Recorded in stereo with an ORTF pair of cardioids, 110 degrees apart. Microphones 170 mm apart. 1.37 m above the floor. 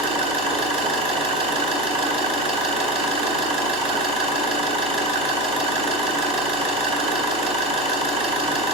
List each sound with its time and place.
0.0 s an engine running: 35° right, 3 m